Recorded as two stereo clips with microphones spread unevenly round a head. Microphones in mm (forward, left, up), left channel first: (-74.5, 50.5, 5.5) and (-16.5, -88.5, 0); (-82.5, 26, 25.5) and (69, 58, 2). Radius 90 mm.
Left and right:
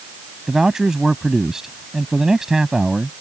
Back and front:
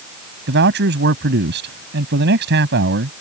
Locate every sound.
0.5 s a man speaking: 20° left